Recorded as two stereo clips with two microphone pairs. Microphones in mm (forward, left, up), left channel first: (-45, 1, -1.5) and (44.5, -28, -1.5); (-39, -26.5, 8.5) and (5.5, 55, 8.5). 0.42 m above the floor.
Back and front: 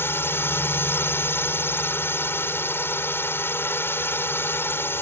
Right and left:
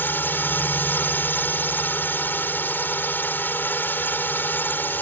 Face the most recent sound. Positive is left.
turn(degrees=-160)